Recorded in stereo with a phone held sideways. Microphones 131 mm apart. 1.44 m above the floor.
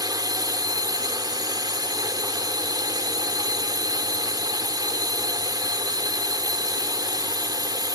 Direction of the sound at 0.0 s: 30° right (ahead or behind).